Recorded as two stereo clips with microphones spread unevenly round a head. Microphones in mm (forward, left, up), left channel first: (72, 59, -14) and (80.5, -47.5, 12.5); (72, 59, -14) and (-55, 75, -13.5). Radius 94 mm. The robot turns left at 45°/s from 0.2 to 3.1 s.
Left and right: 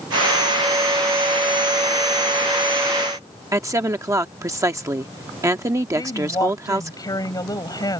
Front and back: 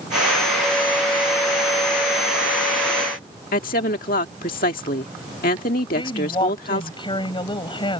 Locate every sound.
3.5 s a woman speaking: 25° right
6.0 s a woman speaking: 40° left